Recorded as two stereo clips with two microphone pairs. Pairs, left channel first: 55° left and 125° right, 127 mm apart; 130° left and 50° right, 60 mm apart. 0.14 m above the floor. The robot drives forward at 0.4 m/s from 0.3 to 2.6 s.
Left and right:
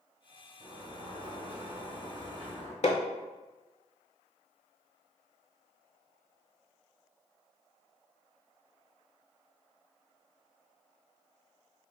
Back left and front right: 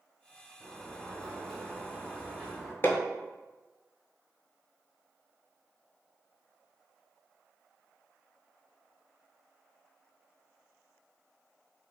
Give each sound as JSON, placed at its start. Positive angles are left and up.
{"t": 0.6, "sound": "a sliding door", "azimuth_deg": -130, "distance_m": 1.0}
{"t": 2.8, "sound": "hammering", "azimuth_deg": 80, "distance_m": 0.5}